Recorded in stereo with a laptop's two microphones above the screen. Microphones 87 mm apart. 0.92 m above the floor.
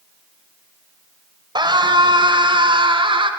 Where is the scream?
60° right (ahead or behind), 4 m; by 3.3 s 75° right (ahead or behind), 3.5 m.